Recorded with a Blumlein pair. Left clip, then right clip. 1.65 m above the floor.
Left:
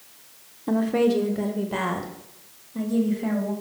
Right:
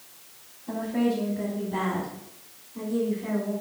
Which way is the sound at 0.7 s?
50° left.